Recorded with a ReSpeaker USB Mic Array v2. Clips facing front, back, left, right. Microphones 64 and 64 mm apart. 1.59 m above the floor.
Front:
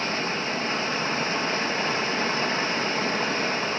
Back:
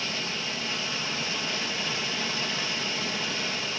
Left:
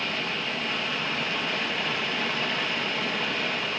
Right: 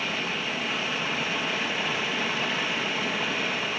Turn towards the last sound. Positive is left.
turn(degrees=-5)